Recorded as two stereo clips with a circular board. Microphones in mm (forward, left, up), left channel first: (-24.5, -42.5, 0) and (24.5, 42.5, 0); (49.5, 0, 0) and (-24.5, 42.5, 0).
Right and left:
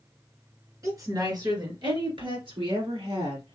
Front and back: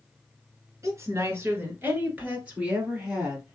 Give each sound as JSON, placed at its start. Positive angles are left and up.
{"t": 0.8, "sound": "a woman speaking", "azimuth_deg": 105, "distance_m": 2.0}